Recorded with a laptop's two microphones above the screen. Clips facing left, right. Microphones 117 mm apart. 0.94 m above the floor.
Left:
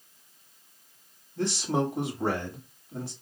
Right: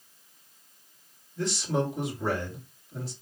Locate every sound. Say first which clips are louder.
1.4 s a man speaking: left 1 dB; 50° left (ahead or behind), 1.2 m